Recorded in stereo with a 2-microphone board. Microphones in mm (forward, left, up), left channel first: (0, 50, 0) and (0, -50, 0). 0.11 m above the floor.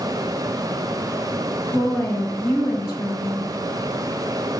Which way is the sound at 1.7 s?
20° left (ahead or behind).